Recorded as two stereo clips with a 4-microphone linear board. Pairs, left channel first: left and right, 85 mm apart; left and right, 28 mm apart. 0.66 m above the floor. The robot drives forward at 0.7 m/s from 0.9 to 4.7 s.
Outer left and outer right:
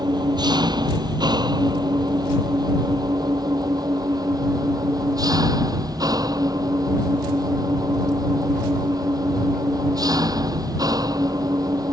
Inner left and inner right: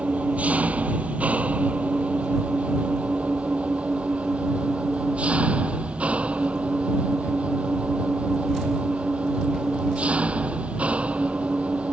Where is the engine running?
60° right (ahead or behind); by 11.9 s 50° right (ahead or behind).